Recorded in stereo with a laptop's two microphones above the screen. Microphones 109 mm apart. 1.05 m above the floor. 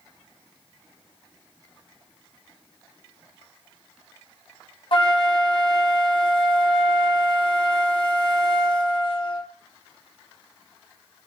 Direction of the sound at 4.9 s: 45° left (ahead or behind).